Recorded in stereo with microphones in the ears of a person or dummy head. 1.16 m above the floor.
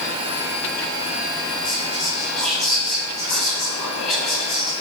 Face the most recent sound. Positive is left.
turn(degrees=0)  # may be behind; listen again after turning